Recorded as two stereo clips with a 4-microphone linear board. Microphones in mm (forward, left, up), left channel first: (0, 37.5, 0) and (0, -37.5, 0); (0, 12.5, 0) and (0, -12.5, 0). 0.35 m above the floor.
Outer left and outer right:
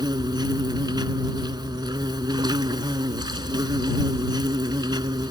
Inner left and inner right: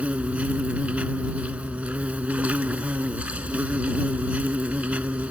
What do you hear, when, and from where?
0.0 s an insect: 75° right (ahead or behind)